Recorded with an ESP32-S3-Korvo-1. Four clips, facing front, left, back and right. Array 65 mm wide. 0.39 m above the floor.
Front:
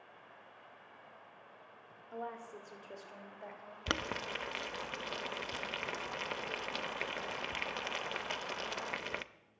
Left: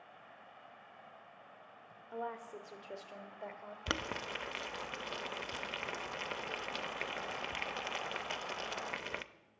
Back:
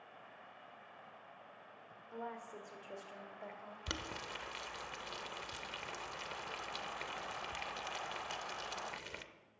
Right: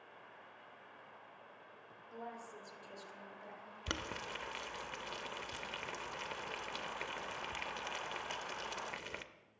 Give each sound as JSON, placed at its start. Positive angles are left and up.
{"t": 2.1, "sound": "a woman speaking", "azimuth_deg": 80, "distance_m": 1.4}
{"t": 3.9, "sound": "boiling", "azimuth_deg": 30, "distance_m": 0.5}